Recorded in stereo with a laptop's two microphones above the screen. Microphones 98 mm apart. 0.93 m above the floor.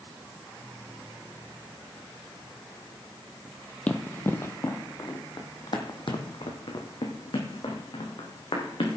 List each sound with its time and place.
3.9 s running footsteps: 15° left (ahead or behind), 1.2 m; by 9.0 s 75° left (ahead or behind), 3 m